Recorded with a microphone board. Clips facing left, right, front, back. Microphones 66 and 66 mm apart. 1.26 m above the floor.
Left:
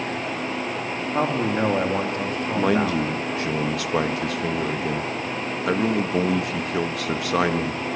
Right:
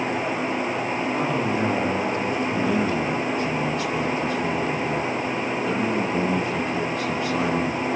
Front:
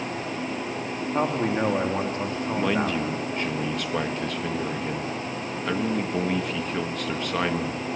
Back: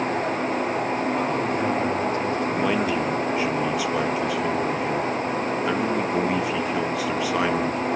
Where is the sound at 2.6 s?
95° left, 1.5 m.